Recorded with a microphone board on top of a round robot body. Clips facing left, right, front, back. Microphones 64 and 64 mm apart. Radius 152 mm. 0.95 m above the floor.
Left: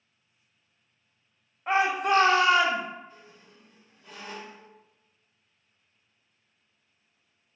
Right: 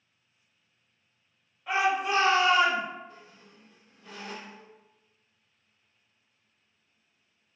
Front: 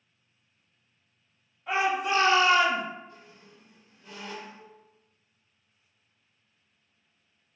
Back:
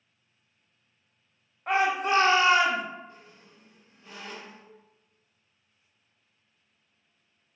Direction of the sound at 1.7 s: 140° left.